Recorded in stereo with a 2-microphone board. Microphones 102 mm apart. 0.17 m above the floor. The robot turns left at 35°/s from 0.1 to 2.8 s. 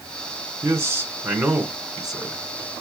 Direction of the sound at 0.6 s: 125° right.